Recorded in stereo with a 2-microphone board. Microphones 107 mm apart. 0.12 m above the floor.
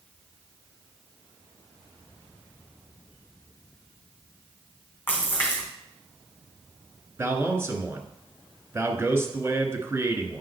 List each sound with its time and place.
5.1 s a splash: 20° left (ahead or behind), 3 m
7.2 s a man speaking: 25° right (ahead or behind), 1.4 m